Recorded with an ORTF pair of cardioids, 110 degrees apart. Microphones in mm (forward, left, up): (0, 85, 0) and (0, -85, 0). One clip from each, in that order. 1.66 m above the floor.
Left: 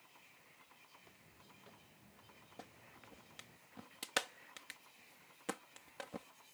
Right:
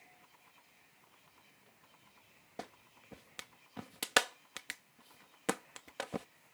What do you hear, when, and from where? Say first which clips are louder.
0.9 s footsteps: left 1 dB; 45° left; by 3.6 s 35° left
2.6 s a clap: right 9 dB; 50° right